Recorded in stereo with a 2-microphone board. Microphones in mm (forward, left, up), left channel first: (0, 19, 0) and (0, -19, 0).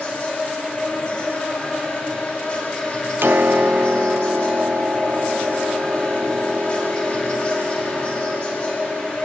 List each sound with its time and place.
0.0 s an insect: 25° left (ahead or behind), 8.5 m
3.2 s a piano: 65° right (ahead or behind), 0.8 m